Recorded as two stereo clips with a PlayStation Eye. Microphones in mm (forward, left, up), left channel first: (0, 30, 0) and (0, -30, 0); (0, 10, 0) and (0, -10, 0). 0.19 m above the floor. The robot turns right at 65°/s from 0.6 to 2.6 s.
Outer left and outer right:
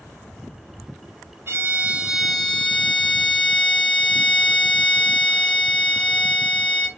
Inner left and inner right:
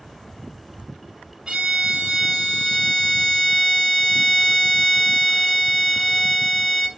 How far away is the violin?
About 0.6 m.